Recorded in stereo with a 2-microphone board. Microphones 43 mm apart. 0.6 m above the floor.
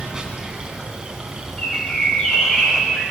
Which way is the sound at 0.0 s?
15° right (ahead or behind).